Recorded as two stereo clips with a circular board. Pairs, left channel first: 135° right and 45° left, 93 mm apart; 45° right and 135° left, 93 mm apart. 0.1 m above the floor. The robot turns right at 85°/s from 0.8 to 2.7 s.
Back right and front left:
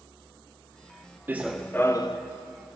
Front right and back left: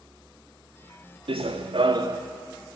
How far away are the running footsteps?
About 0.7 m.